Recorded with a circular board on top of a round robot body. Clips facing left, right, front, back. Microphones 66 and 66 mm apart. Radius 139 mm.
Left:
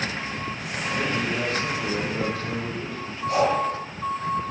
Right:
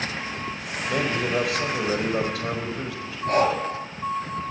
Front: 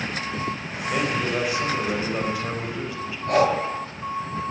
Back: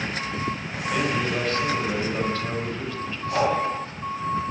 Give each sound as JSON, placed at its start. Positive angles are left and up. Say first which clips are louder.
{"t": 0.9, "sound": "a man speaking", "louder": "right 2 dB, even", "azimuth_deg": -80, "distance_m": 5.5}
{"t": 3.3, "sound": "breathing", "louder": "right 1 dB, front 3 dB", "azimuth_deg": -40, "distance_m": 8.5}